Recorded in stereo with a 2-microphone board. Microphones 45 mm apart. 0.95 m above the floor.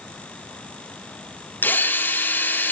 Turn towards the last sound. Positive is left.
turn(degrees=45)  # may be behind; listen again after turning